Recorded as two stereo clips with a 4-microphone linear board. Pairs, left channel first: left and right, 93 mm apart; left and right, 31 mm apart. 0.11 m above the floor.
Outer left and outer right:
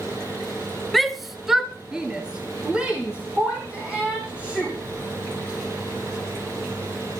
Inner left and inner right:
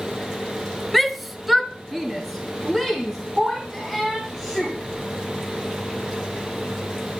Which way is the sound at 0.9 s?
Centre (ahead or behind).